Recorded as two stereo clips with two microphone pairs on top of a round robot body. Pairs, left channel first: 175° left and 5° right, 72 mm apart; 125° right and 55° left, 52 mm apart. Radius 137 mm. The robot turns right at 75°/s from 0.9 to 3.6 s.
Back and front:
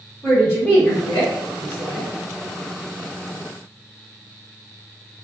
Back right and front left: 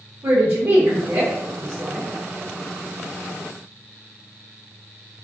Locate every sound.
0.2 s a woman speaking: 90° left, 1.2 m; by 2.1 s straight behind, 1.2 m